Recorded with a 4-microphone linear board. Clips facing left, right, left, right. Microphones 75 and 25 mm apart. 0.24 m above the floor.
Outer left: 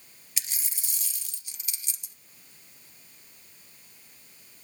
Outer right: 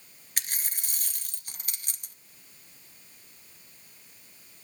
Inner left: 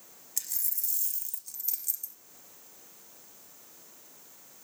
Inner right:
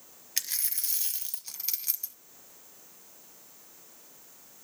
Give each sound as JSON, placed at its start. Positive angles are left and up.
{"t": 0.4, "sound": "a dropped coin", "side_deg": -50, "distance_m": 1.0}